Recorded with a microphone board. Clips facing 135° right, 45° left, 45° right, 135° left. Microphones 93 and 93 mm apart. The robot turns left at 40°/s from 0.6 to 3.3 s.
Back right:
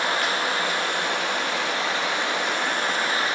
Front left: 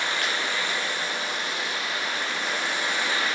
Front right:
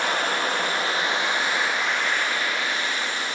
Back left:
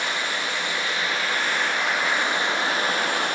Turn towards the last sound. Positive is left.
turn(degrees=165)